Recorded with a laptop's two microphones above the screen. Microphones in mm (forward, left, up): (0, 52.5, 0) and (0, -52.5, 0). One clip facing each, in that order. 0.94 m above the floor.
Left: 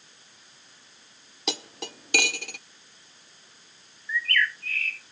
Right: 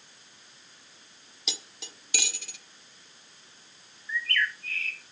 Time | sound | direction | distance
1.5 | cutlery clinking | 65° left (ahead or behind) | 0.5 m
4.1 | a bird | 25° right (ahead or behind) | 1.4 m